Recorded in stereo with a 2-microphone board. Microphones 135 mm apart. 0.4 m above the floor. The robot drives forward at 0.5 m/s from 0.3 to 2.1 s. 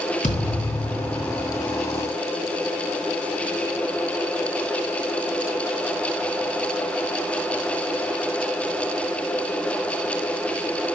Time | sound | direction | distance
0.2 | a thud | 65° left (ahead or behind) | 4 m